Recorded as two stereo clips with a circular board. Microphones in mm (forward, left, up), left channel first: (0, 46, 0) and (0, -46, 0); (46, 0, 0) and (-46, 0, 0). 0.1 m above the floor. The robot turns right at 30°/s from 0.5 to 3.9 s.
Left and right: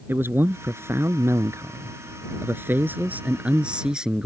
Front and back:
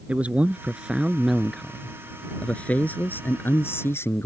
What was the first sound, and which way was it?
A man speaking, 120° right.